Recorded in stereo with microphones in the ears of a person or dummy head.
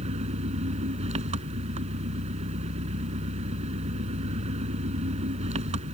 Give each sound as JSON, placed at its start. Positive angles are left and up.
{"t": 0.0, "sound": "an engine running", "side_deg": -35}